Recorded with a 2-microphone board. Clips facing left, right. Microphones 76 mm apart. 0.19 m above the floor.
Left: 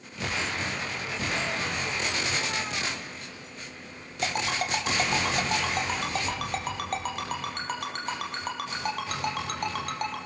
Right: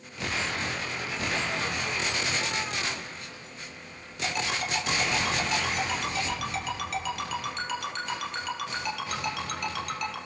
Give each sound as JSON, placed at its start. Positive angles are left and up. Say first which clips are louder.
{"t": 4.2, "sound": "a ringtone", "louder": "left 2 dB", "side_deg": 40, "distance_m": 3.5}